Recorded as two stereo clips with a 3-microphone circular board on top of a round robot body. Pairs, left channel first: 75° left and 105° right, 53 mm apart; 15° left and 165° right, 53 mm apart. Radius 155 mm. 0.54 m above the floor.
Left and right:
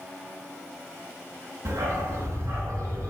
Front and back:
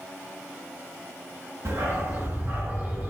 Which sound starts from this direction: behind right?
A dog barking, at 1.6 s.